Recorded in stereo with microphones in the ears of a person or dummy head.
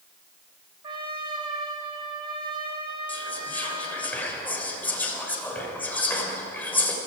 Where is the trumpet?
30° right (ahead or behind), 1.9 m.